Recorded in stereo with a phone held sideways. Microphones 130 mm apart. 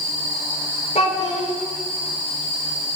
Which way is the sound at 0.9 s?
60° left (ahead or behind).